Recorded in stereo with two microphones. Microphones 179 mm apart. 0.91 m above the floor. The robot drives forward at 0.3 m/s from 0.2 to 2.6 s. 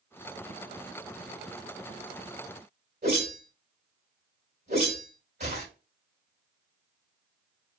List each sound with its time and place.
3.0 s a whoosh: 70° right (ahead or behind), 2.5 m